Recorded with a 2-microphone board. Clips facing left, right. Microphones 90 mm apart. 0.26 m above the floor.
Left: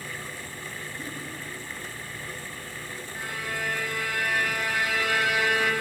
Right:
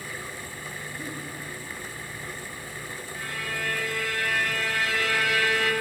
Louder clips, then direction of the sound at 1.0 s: Right 1 dB; 5° right (ahead or behind).